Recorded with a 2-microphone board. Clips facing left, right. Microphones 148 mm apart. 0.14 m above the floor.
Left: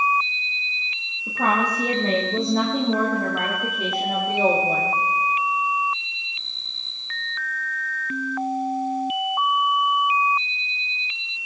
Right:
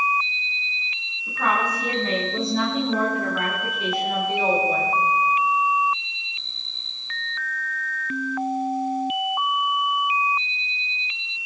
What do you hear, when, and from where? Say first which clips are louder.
1.3 s a woman speaking: left 2 dB; 40° left (ahead or behind), 4.5 m; by 5.0 s 55° left (ahead or behind), 7 m